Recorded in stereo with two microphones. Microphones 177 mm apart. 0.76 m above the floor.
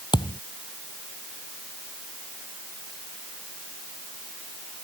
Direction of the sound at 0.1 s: 25° left (ahead or behind).